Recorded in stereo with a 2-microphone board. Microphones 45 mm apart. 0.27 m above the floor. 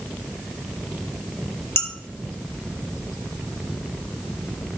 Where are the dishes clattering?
65° left (ahead or behind), 2 m.